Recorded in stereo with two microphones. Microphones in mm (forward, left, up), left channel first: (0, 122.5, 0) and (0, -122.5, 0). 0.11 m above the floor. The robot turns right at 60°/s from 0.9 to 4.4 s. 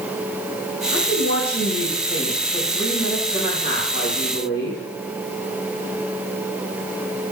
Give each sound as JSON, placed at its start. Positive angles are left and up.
{"t": 0.9, "sound": "a woman speaking", "azimuth_deg": -125, "distance_m": 3.5}